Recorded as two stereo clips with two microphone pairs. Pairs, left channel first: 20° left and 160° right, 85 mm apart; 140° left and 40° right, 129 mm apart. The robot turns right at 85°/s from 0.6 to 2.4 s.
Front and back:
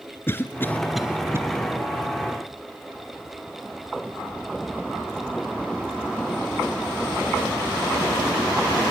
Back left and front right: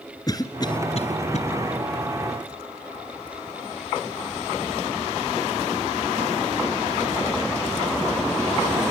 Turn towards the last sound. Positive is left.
turn(degrees=-125)